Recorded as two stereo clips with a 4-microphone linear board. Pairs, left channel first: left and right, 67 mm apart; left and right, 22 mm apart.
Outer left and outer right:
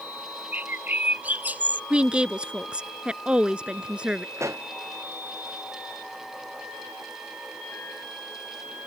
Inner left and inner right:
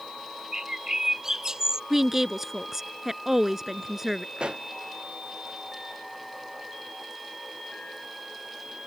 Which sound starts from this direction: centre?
A woman speaking, at 1.9 s.